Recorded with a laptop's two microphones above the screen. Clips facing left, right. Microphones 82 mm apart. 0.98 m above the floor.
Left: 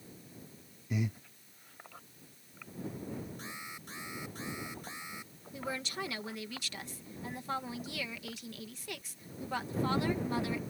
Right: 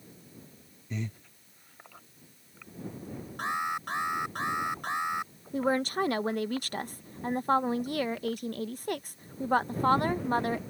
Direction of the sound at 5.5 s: 50° right (ahead or behind).